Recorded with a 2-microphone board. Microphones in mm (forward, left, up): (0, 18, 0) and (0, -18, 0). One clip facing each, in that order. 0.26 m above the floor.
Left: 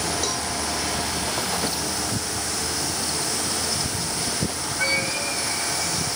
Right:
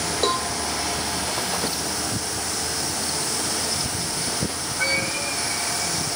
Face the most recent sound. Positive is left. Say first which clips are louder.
# right 5 dB
turn(degrees=-40)  # may be behind; listen again after turning